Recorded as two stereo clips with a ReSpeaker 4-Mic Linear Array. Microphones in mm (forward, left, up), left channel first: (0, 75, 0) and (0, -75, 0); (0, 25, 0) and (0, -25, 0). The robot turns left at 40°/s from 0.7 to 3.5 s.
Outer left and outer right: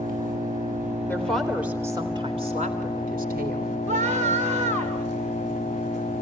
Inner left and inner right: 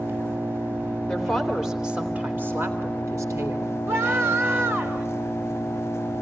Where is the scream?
50° right (ahead or behind), 4 m.